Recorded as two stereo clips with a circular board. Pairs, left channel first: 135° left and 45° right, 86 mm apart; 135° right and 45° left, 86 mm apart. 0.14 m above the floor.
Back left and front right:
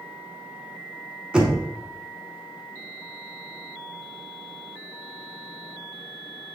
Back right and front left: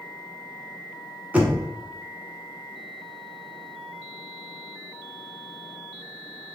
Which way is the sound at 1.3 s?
10° left.